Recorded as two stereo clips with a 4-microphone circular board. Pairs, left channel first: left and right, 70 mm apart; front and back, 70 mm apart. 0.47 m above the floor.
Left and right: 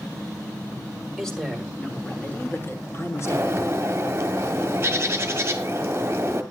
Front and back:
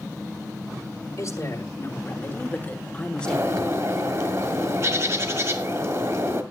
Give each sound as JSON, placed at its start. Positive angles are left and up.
{"t": 1.2, "sound": "a woman speaking", "azimuth_deg": 5, "distance_m": 1.9}
{"t": 3.2, "sound": "a bird", "azimuth_deg": -140, "distance_m": 1.5}